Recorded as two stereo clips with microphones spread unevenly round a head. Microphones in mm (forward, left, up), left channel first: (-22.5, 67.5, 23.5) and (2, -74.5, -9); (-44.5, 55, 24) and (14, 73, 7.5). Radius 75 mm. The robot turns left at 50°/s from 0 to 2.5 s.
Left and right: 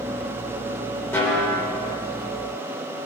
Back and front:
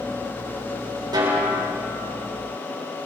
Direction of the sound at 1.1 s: 25° left.